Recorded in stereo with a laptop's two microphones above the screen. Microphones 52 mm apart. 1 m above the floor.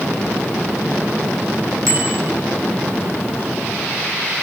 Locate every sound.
1.9 s a bicycle bell: 80° right, 6.5 m